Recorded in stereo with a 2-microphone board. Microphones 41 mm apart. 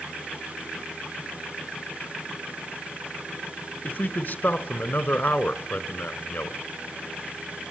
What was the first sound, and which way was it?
A man speaking, 45° left (ahead or behind).